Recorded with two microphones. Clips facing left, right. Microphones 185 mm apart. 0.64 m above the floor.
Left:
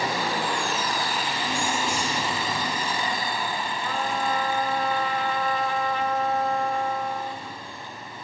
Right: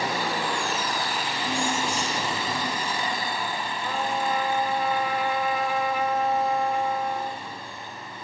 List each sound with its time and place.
1.5 s keys jangling: 35° right (ahead or behind), 9 m
3.8 s a trumpet: 10° right (ahead or behind), 2 m